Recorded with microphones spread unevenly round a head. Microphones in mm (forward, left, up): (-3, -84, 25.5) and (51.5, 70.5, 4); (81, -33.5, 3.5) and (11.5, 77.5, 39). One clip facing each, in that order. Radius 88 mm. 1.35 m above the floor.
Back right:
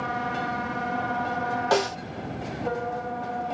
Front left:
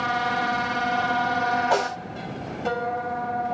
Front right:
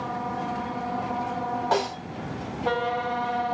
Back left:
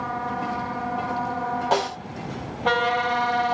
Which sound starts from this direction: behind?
A snare drum, at 1.7 s.